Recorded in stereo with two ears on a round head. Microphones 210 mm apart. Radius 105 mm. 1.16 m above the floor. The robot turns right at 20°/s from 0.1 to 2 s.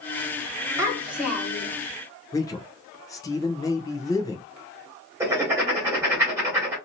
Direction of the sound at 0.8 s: 15° right (ahead or behind).